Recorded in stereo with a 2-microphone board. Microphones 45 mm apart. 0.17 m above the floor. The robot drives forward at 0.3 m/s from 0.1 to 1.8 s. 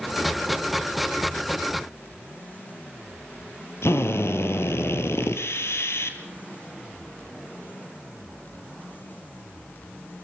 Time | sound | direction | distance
3.8 | a drill | 65° left (ahead or behind) | 2.5 m